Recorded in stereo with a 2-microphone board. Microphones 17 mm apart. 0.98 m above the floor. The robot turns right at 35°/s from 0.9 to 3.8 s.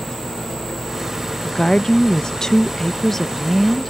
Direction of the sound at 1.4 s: 95° left.